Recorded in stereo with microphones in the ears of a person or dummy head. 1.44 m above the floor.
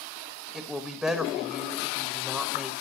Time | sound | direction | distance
0.5 | a woman speaking | 5° right (ahead or behind) | 1.1 m